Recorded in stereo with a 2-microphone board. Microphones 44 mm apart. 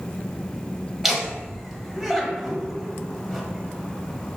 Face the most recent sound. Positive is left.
turn(degrees=-5)  # may be behind; listen again after turning